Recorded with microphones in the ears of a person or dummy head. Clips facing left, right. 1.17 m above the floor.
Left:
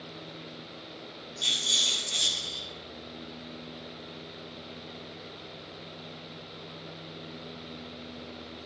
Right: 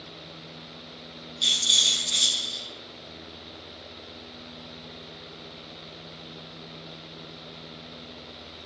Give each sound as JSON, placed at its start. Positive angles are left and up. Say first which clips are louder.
{"t": 1.4, "sound": "a rattle", "louder": "even", "side_deg": -30, "distance_m": 0.8}